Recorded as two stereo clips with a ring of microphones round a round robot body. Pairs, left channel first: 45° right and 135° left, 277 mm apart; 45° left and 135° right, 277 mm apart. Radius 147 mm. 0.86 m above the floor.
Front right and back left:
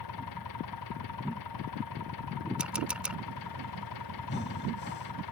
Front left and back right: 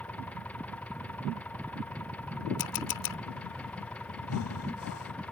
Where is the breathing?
10° left.